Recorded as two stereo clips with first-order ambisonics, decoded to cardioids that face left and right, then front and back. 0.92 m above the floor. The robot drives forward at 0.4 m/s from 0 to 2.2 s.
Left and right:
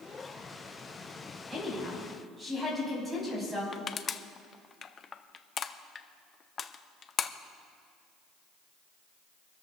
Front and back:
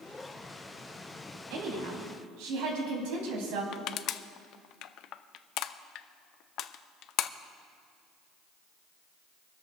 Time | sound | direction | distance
1.5 | a woman speaking | 170° right | 5.5 m
3.7 | crushing | 30° left | 0.5 m